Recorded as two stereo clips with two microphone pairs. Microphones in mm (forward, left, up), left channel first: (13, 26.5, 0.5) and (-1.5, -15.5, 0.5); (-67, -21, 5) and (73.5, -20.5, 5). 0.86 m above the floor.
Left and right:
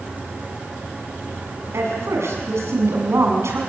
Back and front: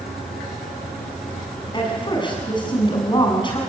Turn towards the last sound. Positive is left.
turn(degrees=-125)